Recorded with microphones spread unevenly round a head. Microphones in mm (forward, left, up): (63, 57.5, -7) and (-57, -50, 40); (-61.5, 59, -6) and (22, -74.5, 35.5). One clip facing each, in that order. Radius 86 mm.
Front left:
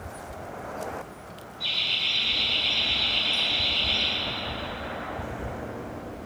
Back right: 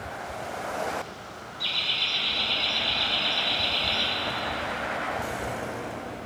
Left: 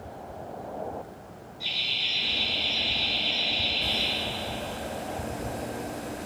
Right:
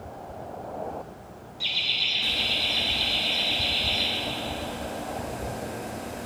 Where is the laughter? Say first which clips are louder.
Back right 2 dB, right 1 dB; 115° right, 2 m; by 4.1 s 110° right, 3.5 m.